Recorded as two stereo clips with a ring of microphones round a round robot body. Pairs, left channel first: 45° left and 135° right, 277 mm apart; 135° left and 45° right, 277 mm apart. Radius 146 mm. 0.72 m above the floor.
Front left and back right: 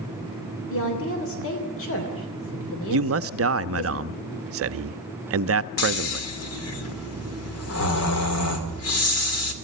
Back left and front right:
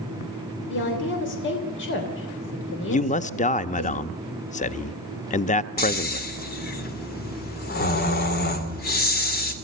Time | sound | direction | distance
0.7 | a woman speaking | 85° left | 3 m
2.9 | a man speaking | 165° right | 0.8 m
5.8 | snoring | 80° left | 2.5 m